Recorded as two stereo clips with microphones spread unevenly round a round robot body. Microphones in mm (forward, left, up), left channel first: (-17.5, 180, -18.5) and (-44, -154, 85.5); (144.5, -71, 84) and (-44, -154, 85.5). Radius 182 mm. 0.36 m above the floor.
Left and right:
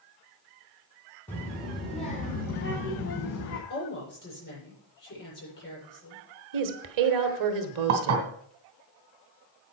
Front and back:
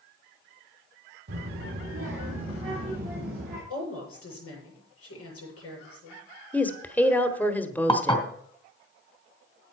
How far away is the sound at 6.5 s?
About 1.4 m.